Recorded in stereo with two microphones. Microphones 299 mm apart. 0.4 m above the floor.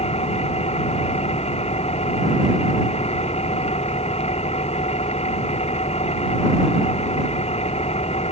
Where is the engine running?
20° left (ahead or behind).